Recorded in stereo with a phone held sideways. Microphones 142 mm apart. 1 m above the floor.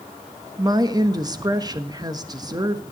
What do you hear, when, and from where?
0.6 s a woman speaking: 25° right (ahead or behind), 1.1 m